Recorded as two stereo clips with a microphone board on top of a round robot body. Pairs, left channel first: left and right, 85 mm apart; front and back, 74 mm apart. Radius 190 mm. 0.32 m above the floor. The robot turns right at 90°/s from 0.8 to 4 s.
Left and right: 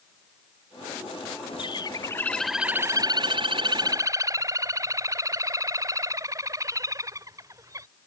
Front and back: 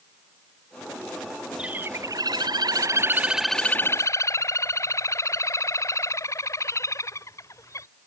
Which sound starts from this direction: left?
A bird, at 1.6 s.